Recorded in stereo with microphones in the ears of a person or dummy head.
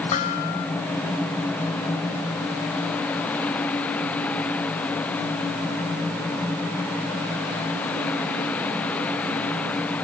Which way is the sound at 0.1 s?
45° left (ahead or behind).